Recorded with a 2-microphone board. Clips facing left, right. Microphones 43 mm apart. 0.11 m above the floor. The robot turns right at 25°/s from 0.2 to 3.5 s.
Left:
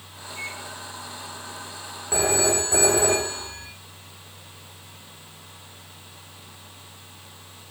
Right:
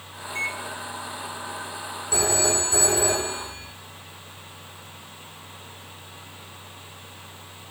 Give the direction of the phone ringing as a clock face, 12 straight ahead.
11 o'clock.